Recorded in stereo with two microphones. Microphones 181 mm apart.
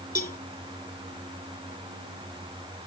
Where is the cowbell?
50° left (ahead or behind).